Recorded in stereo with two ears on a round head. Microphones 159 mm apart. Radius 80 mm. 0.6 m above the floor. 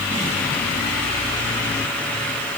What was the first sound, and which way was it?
Only background noise.